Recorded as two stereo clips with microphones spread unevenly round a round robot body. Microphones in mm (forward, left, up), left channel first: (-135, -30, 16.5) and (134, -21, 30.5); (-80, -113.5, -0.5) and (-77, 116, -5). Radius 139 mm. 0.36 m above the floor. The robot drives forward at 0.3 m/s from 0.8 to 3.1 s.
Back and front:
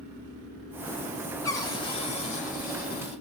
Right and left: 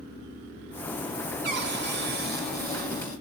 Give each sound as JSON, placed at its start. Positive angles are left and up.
{"t": 1.4, "sound": "a cupboard door", "azimuth_deg": 110, "distance_m": 1.0}